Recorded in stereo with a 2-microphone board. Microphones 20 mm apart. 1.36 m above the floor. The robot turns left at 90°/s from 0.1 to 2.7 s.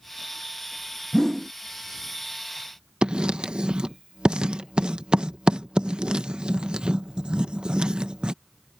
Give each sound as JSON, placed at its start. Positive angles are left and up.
{"t": 1.1, "sound": "a whoosh", "azimuth_deg": 25}
{"t": 3.0, "sound": "writing", "side_deg": -60}